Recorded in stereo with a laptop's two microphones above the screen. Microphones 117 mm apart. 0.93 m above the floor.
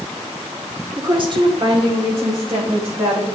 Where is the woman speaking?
40° right (ahead or behind), 2.5 m; by 3.4 s 55° right (ahead or behind), 5 m.